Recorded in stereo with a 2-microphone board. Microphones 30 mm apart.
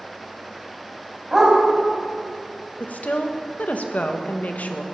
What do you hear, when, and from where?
1.3 s a dog barking: 10° right (ahead or behind), 4 m
2.8 s a woman speaking: 60° left (ahead or behind), 1.4 m